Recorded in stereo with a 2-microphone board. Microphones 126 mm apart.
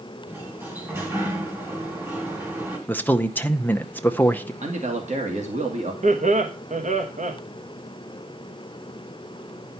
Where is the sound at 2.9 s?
15° left (ahead or behind), 0.8 m.